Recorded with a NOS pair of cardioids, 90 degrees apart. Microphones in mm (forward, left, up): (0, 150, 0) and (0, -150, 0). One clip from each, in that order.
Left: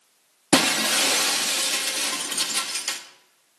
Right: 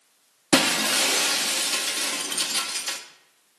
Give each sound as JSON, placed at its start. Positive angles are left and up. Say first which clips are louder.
{"t": 0.5, "sound": "breaking glass", "louder": "left 1 dB", "azimuth_deg": 15, "distance_m": 1.2}